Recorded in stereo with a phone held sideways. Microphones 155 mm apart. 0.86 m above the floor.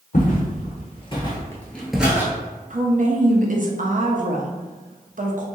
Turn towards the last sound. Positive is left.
turn(degrees=-55)  # may be behind; listen again after turning